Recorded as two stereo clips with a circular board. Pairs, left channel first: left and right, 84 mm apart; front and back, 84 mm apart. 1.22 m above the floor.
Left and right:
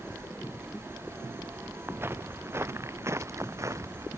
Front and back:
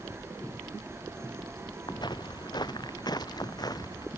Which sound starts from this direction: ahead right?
Footsteps, at 1.9 s.